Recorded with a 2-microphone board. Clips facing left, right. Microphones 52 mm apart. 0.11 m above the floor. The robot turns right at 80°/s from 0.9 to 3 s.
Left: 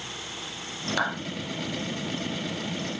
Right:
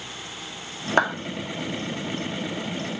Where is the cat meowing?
I don't hear a cat meowing.